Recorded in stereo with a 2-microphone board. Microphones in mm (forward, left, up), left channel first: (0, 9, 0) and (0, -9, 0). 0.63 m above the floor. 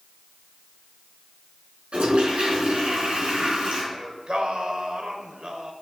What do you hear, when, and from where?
1.9 s a toilet flushing: 80° right, 3.5 m
3.9 s singing: 60° right (ahead or behind), 1.5 m